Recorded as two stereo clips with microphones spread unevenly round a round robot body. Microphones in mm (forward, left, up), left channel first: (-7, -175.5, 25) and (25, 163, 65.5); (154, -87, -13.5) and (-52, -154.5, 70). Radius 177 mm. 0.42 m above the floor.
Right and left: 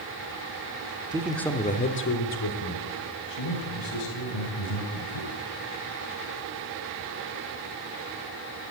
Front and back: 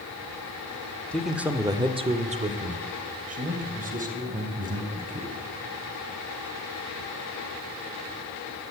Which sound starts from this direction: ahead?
A man speaking, at 1.1 s.